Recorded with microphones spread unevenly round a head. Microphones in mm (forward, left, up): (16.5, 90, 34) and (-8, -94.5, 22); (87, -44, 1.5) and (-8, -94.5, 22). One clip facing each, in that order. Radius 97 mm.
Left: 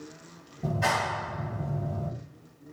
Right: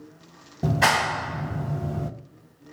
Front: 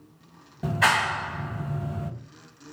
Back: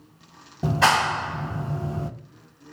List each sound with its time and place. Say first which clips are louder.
0.6 s a clap: right 5 dB, back 4 dB; 100° right, 0.6 m